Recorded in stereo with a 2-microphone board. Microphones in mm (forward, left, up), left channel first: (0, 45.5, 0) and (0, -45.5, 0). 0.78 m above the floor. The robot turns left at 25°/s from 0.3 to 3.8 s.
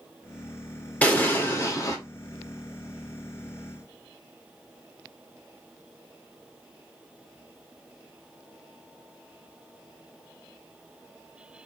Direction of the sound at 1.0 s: 15° left (ahead or behind).